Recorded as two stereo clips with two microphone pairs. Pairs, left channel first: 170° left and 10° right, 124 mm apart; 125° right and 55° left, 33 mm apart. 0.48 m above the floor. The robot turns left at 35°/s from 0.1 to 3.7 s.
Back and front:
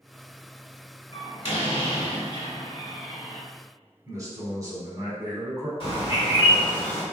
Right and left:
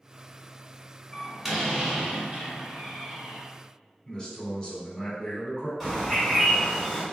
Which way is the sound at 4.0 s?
60° right.